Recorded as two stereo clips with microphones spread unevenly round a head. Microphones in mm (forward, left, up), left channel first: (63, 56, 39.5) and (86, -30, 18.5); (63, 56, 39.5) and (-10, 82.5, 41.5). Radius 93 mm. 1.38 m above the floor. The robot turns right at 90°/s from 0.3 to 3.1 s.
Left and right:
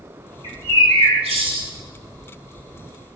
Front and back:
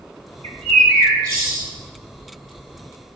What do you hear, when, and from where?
0.4 s a bird: 155° right, 1.6 m; by 1.6 s 45° right, 1.6 m